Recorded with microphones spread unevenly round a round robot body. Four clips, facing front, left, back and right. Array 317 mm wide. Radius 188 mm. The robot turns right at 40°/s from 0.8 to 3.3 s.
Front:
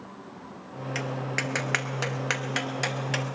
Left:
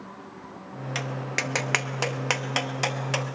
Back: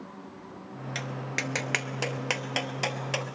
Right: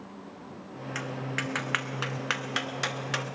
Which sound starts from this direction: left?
Tapping, at 0.9 s.